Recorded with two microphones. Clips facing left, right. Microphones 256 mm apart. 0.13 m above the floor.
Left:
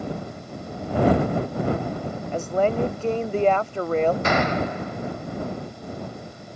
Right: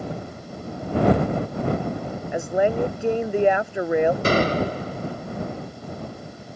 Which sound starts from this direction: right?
A gunshot, at 4.2 s.